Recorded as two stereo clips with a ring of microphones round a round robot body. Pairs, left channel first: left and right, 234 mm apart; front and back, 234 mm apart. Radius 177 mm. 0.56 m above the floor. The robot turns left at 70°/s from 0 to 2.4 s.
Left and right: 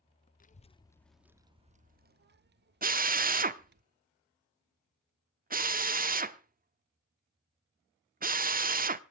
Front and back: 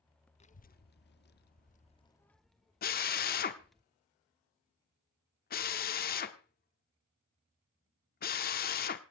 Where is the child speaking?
50° left, 0.9 m; by 3.8 s 90° right, 0.9 m.